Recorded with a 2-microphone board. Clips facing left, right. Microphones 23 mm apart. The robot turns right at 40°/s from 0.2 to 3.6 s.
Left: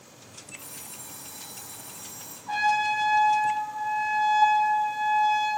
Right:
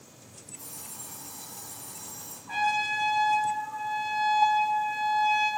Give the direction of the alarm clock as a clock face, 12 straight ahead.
10 o'clock.